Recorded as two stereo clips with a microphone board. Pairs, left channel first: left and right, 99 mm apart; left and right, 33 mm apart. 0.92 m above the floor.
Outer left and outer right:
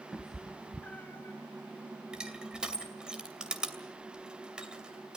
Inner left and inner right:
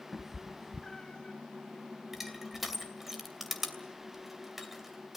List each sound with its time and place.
0.1 s a cat meowing: 5° right (ahead or behind), 0.8 m; by 1.4 s 25° left (ahead or behind), 1.3 m
2.1 s crushing: 10° right (ahead or behind), 2.5 m